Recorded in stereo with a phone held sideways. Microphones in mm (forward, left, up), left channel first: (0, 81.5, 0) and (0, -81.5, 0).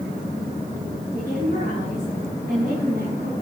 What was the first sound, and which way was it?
A woman speaking, 50° right (ahead or behind).